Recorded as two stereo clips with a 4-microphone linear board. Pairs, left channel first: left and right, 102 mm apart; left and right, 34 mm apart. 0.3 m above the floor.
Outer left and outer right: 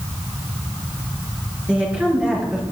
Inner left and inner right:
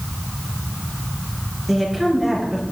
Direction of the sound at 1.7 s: 10° right (ahead or behind).